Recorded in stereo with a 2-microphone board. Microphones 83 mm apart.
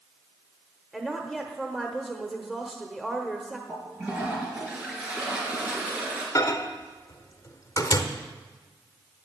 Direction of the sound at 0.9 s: 5° right (ahead or behind).